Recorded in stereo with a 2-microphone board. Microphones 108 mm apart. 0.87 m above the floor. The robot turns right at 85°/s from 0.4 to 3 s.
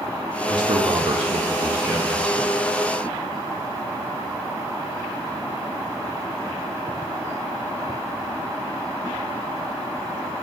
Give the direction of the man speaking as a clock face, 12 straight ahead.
4 o'clock.